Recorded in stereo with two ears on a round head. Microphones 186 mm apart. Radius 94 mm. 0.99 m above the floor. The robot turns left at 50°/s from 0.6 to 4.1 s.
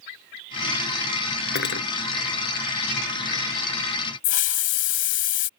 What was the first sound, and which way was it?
Cutlery clinking, 50° left (ahead or behind).